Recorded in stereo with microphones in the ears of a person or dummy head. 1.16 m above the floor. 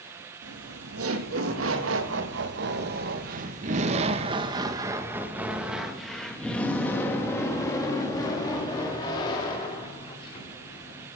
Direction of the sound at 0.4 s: 75° right (ahead or behind).